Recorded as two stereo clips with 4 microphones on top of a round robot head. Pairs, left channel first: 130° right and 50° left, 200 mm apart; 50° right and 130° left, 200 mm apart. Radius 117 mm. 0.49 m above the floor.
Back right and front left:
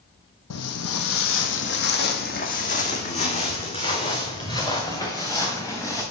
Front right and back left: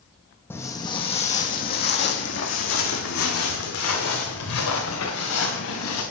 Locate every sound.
0.5 s footsteps: 130° right, 1.1 m; by 6.0 s 55° right, 3 m